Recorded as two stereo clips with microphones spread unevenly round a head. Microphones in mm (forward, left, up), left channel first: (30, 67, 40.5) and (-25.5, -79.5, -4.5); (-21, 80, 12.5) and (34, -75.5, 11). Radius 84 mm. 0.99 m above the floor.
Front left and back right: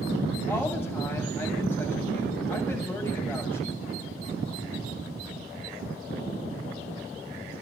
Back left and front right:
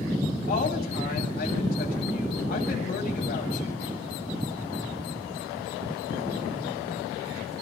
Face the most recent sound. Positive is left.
turn(degrees=150)